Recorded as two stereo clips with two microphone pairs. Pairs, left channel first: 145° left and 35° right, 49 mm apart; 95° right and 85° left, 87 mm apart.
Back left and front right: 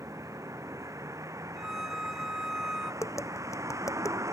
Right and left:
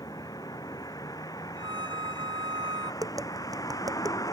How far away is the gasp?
No gasp in this recording.